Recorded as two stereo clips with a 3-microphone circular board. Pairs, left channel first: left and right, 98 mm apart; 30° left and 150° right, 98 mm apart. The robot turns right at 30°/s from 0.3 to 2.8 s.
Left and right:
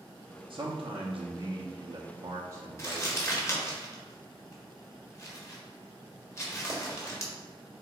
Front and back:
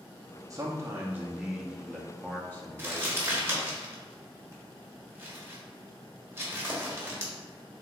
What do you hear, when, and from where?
0.5 s a man speaking: 100° right, 0.9 m; by 3.8 s 30° right, 0.9 m
2.8 s crumpling: 145° left, 1.2 m